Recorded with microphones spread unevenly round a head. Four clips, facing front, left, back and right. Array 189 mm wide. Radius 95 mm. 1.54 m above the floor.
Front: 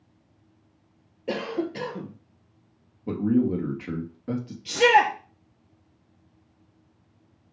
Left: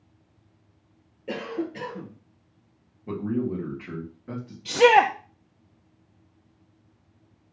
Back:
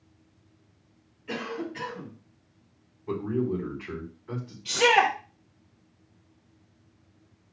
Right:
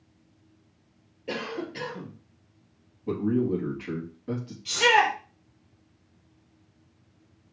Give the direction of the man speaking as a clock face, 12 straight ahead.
12 o'clock.